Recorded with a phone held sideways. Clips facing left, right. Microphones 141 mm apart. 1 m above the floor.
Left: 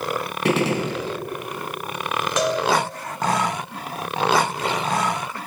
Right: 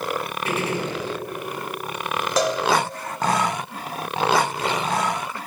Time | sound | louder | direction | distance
0.5 | a gunshot | left 6 dB | 85° left | 1.0 m
2.4 | a cowbell | even | 35° right (ahead or behind) | 1.0 m